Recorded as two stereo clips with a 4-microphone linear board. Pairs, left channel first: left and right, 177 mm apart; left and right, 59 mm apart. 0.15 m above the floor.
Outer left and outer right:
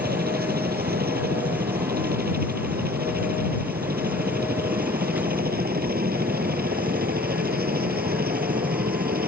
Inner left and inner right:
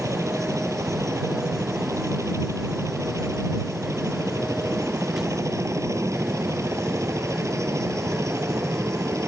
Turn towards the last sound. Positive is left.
turn(degrees=-60)  # may be behind; listen again after turning